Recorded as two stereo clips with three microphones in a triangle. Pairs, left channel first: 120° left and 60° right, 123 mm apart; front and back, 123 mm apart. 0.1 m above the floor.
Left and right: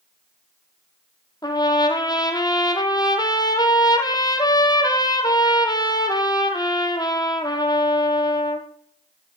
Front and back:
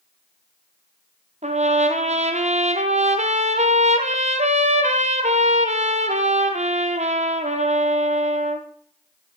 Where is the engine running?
I don't hear an engine running.